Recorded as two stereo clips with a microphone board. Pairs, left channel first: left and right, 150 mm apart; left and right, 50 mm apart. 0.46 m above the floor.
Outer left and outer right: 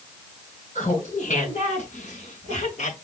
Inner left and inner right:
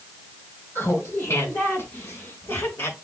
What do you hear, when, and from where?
0.8 s laughter: 55° left (ahead or behind), 5 m; by 2.9 s 50° left (ahead or behind), 6 m